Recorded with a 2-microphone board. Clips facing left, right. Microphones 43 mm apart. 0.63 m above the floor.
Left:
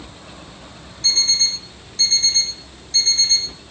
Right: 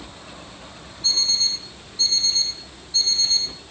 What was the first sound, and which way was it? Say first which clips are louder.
An alarm clock: left 3 dB; 90° left.